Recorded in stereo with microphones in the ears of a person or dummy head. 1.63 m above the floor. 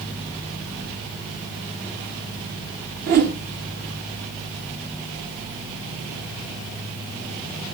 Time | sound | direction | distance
3.1 | a whoosh | 40° right (ahead or behind) | 1.1 m